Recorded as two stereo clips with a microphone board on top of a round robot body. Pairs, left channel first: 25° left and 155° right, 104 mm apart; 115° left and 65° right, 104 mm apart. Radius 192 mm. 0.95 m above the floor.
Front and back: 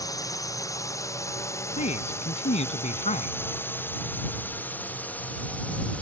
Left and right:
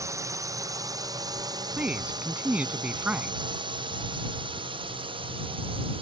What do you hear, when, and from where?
0.0 s a drone: 20° right; by 6.0 s 55° right
1.8 s a man speaking: 10° left